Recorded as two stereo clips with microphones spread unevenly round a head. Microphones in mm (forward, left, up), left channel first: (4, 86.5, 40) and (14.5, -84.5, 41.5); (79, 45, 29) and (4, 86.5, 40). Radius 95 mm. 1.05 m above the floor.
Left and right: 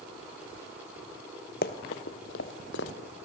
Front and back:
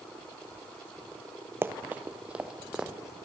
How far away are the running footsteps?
About 1.4 m.